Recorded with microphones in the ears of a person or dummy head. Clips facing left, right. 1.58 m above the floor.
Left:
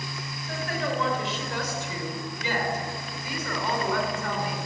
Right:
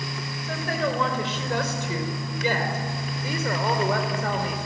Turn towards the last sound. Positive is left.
turn(degrees=-40)  # may be behind; listen again after turning